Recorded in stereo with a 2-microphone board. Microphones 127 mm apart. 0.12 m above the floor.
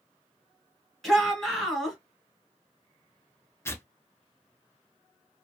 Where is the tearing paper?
20° left (ahead or behind), 0.6 m.